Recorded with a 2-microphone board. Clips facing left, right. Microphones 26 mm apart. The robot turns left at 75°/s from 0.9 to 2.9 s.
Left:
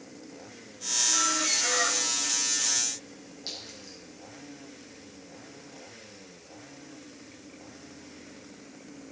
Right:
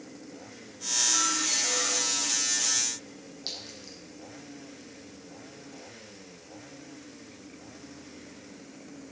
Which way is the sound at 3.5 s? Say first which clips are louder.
Right 1 dB; 25° right (ahead or behind).